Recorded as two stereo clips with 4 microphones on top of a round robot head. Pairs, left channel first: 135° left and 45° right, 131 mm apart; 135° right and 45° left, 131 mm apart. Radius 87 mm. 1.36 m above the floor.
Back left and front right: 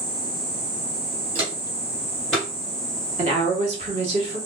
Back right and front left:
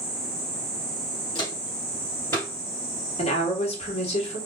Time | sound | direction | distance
1.4 | footsteps | 85° right | 1.9 m
3.2 | a woman speaking | 90° right | 1.2 m